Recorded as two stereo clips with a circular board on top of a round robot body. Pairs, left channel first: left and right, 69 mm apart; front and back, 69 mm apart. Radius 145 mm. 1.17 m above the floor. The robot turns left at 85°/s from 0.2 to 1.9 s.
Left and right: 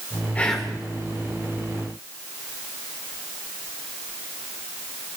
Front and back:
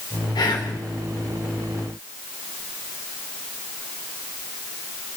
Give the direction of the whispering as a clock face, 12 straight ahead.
11 o'clock.